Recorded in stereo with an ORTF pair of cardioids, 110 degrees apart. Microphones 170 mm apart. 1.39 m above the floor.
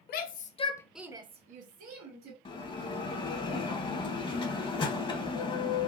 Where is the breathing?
I don't hear breathing.